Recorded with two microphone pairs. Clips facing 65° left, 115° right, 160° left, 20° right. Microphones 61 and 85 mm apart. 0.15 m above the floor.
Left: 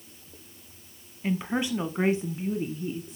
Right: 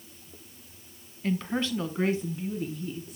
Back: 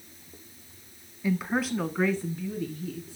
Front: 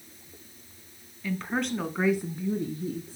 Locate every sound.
1.2 s a woman speaking: 120° left, 1.0 m; by 3.2 s 10° left, 1.4 m